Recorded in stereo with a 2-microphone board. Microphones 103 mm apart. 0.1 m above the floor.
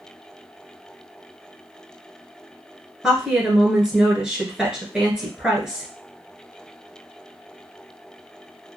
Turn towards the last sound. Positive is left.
turn(degrees=-10)  # may be behind; listen again after turning